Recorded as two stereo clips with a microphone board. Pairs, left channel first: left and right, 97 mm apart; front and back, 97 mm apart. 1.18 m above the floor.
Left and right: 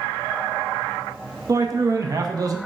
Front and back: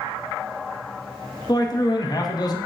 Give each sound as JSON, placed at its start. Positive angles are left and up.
{"t": 1.5, "sound": "a man speaking", "azimuth_deg": -40, "distance_m": 0.5}